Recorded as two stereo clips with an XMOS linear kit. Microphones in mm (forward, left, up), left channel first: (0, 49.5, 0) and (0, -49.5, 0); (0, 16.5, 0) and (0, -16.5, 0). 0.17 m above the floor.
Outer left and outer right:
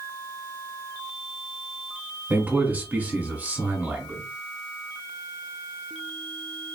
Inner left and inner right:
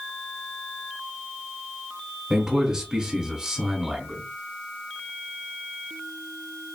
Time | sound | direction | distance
2.3 | a man speaking | 15° right (ahead or behind) | 1.2 m